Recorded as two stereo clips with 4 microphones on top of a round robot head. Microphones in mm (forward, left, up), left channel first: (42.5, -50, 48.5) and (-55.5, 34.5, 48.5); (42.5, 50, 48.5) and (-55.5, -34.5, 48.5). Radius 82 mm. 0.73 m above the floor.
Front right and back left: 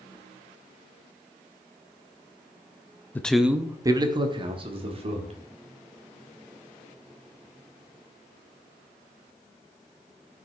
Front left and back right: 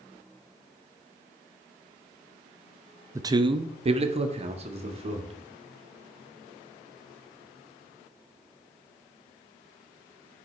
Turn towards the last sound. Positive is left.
turn(degrees=180)